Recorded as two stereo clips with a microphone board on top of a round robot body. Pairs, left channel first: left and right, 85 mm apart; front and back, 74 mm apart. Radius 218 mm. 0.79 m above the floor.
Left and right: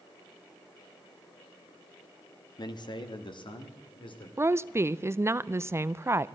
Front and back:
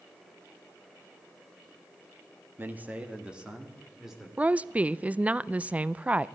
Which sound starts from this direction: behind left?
A man speaking, at 2.6 s.